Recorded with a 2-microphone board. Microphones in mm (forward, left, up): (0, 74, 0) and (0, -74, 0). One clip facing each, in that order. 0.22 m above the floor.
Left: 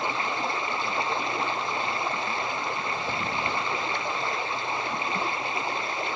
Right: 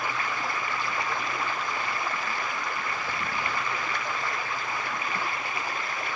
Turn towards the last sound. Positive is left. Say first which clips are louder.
# left 2 dB
turn(degrees=25)  # may be behind; listen again after turning